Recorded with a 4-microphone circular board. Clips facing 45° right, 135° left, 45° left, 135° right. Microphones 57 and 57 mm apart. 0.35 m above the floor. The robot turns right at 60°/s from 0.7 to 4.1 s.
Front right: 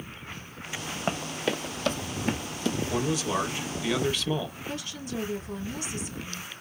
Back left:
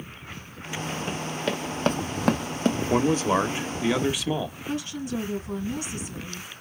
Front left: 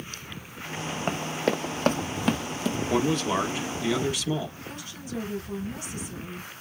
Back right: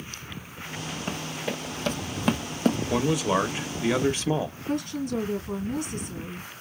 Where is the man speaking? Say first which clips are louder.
Back left 8 dB, front left 3 dB; 135° left, 1.0 m; by 4.6 s 150° right, 1.0 m.